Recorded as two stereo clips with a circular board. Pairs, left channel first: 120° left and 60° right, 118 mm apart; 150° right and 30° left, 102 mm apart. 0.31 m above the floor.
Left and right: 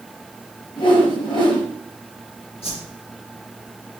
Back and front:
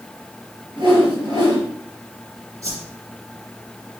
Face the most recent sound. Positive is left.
turn(degrees=85)